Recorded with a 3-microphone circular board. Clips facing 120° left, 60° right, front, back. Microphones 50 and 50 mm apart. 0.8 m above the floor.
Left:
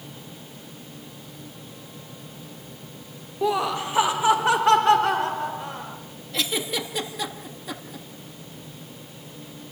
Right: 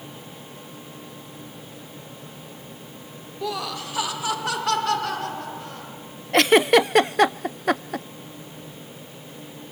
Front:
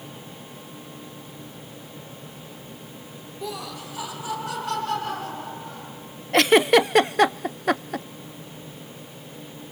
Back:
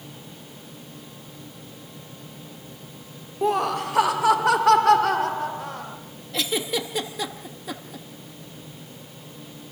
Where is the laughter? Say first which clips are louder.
Left 6 dB, back 12 dB; 170° left, 0.6 m; by 6.0 s 175° right, 4 m.